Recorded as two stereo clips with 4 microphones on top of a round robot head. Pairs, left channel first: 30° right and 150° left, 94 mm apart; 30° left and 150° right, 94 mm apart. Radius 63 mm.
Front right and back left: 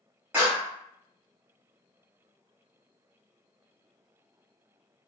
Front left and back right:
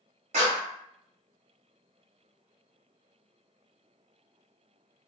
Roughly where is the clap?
Behind right.